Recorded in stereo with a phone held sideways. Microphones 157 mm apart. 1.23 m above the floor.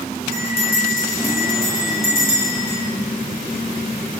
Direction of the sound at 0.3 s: 60° left (ahead or behind).